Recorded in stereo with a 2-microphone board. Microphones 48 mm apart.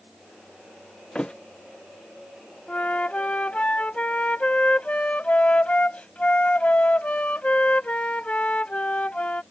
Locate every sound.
1.1 s a thud: 25° left (ahead or behind)
2.7 s a flute: 30° left (ahead or behind)